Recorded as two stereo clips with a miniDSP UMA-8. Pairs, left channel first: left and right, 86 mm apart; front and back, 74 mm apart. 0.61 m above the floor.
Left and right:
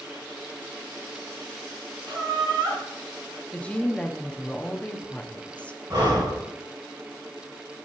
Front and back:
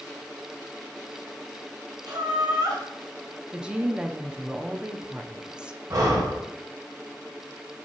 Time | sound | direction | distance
2.1 | laughter | 145° right | 3.5 m
3.5 | a woman speaking | 130° left | 0.5 m
5.9 | breathing | 135° right | 2 m